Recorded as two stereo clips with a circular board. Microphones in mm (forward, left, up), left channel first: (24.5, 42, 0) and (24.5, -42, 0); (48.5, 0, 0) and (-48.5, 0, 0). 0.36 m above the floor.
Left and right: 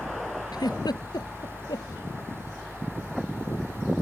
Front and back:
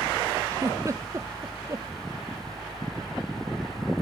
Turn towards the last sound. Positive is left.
turn(degrees=125)